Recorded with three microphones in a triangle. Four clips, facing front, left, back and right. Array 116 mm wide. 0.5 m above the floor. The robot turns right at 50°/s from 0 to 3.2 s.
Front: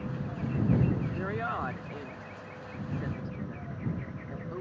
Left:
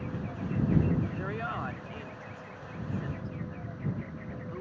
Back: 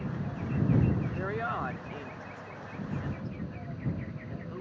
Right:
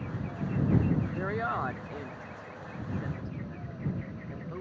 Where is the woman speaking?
115° right; by 4.6 s 10° right.